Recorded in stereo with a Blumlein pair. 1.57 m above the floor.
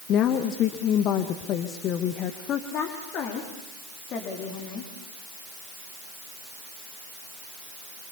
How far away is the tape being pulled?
I don't hear tape being pulled.